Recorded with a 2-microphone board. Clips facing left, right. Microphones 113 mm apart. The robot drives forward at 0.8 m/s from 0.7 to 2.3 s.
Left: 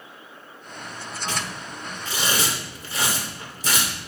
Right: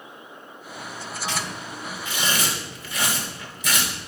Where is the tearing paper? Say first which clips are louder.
Even; 45° left (ahead or behind), 2 m; by 3.9 s 35° left (ahead or behind), 2.5 m.